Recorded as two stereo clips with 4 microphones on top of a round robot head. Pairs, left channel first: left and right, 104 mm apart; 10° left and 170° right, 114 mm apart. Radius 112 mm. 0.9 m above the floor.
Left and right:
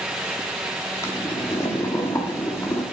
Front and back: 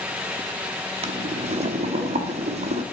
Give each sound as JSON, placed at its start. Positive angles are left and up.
{"t": 1.0, "sound": "boiling", "azimuth_deg": 160, "distance_m": 1.1}